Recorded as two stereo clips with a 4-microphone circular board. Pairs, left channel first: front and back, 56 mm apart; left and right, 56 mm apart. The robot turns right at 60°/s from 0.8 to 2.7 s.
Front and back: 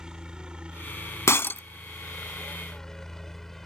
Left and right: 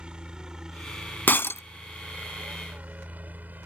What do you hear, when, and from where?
0.0 s a helicopter: 130° right; by 3.7 s 80° right
1.3 s breaking glass: 35° left; by 1.6 s 55° left